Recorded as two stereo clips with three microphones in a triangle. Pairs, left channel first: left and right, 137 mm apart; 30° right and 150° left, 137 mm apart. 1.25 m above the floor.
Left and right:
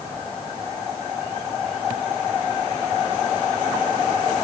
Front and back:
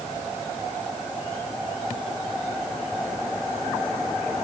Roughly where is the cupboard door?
I don't hear a cupboard door.